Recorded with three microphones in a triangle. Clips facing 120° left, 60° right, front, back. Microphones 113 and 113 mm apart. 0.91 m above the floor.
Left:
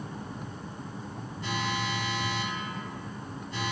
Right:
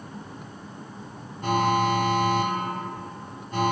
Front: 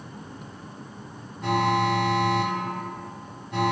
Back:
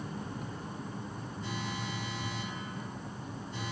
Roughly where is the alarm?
Ahead.